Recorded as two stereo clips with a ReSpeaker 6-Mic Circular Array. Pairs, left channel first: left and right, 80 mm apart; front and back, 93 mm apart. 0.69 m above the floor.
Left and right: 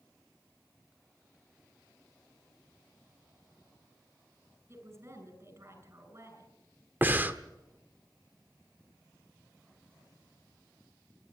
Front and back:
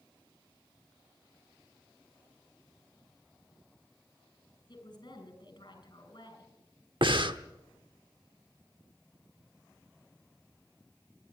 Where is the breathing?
155° right, 1.0 m.